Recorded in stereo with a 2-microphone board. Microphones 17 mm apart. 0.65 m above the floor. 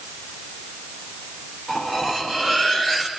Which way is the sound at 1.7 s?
50° right (ahead or behind).